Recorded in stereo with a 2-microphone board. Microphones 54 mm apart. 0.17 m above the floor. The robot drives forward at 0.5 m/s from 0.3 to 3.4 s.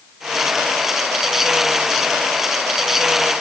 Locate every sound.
Only background noise.